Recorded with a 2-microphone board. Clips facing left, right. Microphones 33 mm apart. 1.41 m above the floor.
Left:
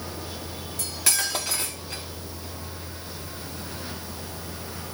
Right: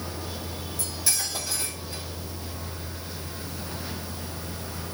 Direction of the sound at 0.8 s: 65° left (ahead or behind).